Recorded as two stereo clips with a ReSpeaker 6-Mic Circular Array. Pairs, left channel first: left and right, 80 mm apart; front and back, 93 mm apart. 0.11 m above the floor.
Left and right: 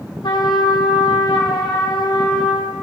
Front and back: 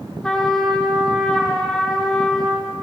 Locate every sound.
0.2 s a trumpet: 85° left, 1.7 m